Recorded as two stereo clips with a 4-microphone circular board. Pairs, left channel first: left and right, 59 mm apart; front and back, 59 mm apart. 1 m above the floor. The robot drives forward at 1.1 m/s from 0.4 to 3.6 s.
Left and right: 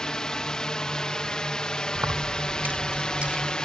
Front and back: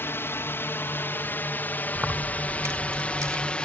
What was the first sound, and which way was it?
A drone, 15° left.